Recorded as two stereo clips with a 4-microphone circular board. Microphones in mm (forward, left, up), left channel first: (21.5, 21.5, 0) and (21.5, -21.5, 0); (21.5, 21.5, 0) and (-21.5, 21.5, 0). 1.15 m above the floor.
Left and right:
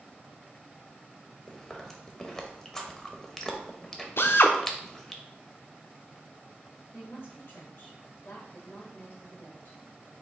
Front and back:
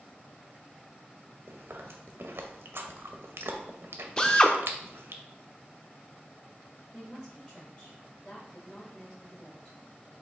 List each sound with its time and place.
1.5 s chewing: 175° left, 0.6 m
4.2 s a drill: 65° left, 0.5 m
6.9 s a woman speaking: 45° left, 1.4 m